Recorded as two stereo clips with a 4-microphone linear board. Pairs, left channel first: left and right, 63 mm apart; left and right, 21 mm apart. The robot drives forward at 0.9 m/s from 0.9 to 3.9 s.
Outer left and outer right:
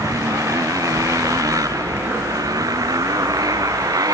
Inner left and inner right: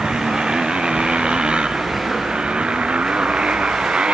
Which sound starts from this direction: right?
A motorcycle, at 0.0 s.